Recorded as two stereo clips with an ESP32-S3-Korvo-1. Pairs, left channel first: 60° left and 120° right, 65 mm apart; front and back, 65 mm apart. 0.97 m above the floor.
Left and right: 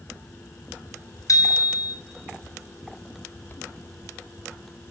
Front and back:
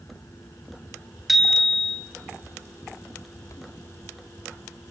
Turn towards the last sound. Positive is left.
turn(degrees=95)